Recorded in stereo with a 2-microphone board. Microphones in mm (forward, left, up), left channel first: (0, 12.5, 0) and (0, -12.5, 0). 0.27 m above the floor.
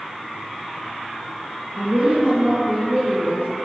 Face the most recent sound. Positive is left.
turn(degrees=-60)  # may be behind; listen again after turning